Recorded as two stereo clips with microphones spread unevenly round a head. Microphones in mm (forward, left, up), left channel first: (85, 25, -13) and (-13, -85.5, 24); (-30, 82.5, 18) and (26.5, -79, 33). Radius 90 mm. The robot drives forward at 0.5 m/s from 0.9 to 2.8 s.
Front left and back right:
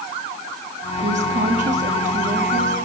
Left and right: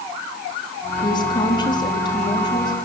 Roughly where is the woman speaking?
Behind.